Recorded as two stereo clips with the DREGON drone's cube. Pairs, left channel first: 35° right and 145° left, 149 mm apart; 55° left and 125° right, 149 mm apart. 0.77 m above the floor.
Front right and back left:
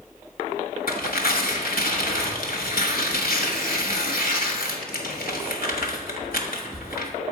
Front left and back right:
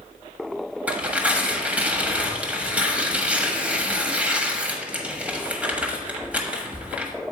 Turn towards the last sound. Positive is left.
turn(degrees=-45)